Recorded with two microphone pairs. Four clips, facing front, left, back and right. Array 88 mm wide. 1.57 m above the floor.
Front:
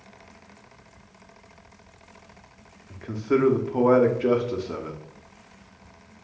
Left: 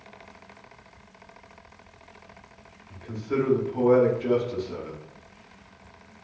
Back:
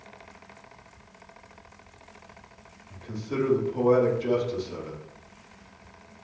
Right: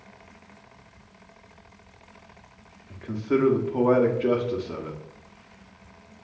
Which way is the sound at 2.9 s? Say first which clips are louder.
Right 4 dB, front 9 dB; 20° right.